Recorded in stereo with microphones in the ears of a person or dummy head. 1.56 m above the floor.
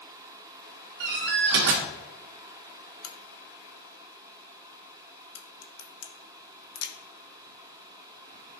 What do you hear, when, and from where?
1.0 s a door slam: 50° right (ahead or behind), 0.9 m
3.0 s a crack: 85° left, 1.3 m